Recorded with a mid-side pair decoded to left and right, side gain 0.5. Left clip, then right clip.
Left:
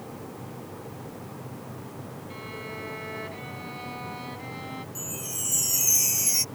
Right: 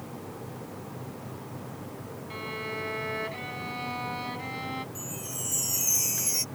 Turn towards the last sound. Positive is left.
turn(degrees=25)